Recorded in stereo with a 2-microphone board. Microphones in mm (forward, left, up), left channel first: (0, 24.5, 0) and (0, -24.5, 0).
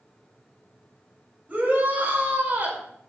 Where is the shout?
35° right (ahead or behind), 4 m.